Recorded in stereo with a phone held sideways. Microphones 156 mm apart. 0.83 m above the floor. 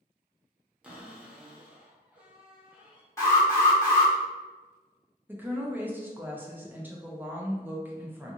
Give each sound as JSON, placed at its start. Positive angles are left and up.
{"t": 0.8, "sound": "a cupboard door", "side_deg": -5, "distance_m": 0.6}
{"t": 3.2, "sound": "an alarm", "side_deg": 20, "distance_m": 1.2}
{"t": 5.3, "sound": "a woman speaking", "side_deg": -10, "distance_m": 0.5}